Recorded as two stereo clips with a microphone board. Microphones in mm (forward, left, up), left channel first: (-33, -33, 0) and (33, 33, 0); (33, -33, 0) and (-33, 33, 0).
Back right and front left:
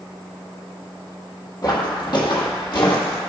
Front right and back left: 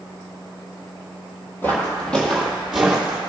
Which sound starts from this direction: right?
Footsteps, at 1.6 s.